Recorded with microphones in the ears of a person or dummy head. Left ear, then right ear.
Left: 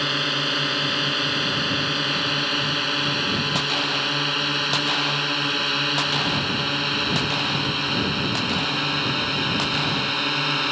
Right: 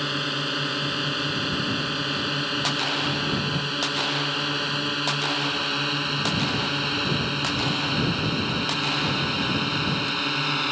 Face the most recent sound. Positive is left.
turn(degrees=10)  # may be behind; listen again after turning